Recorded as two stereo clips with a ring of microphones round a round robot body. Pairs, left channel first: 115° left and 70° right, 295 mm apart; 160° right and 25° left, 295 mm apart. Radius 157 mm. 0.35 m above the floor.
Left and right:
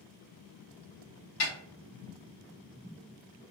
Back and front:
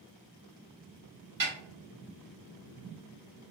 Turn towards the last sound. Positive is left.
turn(degrees=75)